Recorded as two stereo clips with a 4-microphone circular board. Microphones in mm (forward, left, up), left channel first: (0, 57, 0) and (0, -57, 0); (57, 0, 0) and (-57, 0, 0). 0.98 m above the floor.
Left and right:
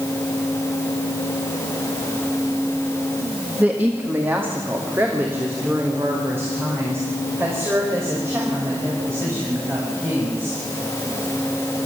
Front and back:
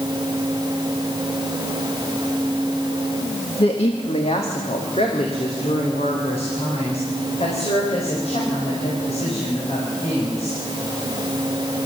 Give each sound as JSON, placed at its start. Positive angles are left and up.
{"t": 3.6, "sound": "a woman speaking", "azimuth_deg": -15, "distance_m": 1.5}